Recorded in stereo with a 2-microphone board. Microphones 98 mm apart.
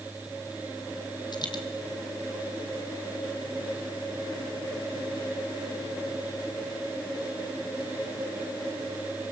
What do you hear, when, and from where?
1.3 s a dropped coin: 45° left (ahead or behind), 2.5 m